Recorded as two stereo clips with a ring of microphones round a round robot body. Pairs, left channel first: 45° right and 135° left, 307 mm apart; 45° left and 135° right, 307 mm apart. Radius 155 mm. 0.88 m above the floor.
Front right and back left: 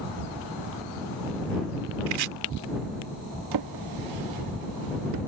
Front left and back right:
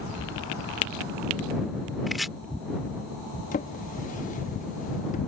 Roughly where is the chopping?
Behind left.